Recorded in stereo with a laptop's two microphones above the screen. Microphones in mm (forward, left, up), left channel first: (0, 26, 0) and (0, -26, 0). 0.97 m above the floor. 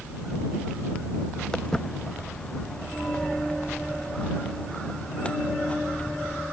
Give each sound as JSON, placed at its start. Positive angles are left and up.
{"t": 1.5, "sound": "footsteps", "side_deg": 15}